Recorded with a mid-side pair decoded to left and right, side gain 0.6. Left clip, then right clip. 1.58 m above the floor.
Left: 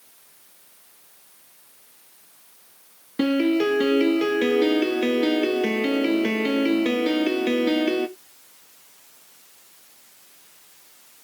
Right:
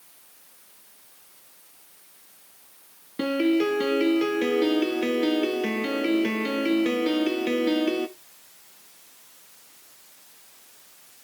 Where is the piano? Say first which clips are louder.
Left 2 dB; 15° left, 1.0 m.